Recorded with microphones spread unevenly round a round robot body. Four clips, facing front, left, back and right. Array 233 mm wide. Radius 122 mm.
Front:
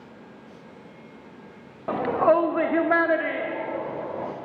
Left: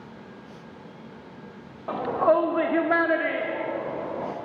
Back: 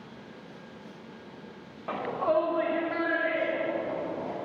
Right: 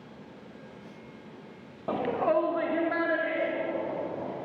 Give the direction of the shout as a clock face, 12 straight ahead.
1 o'clock.